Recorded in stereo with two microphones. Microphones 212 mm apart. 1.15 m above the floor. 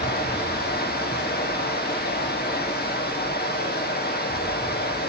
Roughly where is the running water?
Left.